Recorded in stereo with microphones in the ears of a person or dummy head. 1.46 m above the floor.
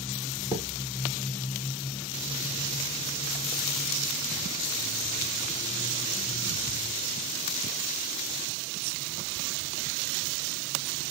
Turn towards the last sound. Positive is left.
turn(degrees=25)  # may be behind; listen again after turning